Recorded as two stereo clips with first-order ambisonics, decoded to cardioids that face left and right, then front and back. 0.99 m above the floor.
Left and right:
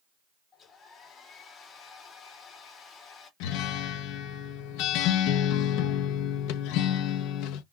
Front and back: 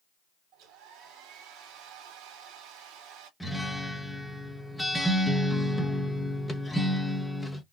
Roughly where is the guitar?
Left.